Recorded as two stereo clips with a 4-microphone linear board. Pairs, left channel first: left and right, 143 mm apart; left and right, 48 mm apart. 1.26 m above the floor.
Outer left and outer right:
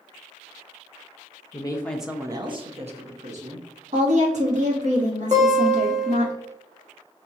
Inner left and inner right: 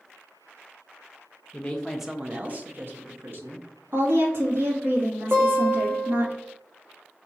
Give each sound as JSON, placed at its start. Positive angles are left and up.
{"t": 1.5, "sound": "a woman speaking", "side_deg": 35, "distance_m": 0.6}
{"t": 3.9, "sound": "a woman speaking", "side_deg": -55, "distance_m": 1.7}
{"t": 5.3, "sound": "a guitar", "side_deg": -50, "distance_m": 1.1}